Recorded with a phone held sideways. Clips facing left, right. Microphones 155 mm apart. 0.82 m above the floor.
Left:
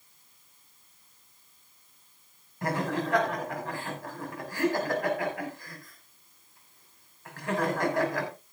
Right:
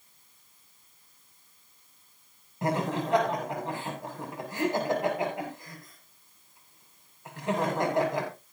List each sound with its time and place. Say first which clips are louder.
2.6 s laughter: right 1 dB; 20° right (ahead or behind), 6 m